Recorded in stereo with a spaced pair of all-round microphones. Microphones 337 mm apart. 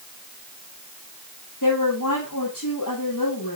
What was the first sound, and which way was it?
A woman speaking, 65° left (ahead or behind).